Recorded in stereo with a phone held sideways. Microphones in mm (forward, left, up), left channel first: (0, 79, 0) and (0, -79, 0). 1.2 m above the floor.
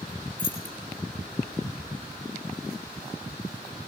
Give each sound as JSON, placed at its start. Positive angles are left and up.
{"t": 0.4, "sound": "keys jangling", "side_deg": -35, "distance_m": 3.5}